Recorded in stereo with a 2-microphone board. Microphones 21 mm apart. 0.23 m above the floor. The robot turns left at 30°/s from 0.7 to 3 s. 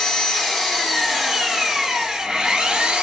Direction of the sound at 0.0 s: 25° left.